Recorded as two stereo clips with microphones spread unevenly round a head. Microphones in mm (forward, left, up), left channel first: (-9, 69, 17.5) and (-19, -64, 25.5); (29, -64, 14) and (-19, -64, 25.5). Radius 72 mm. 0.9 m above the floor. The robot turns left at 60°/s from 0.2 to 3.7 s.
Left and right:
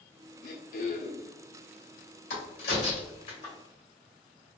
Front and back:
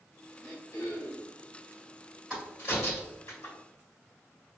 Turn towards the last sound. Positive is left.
turn(degrees=15)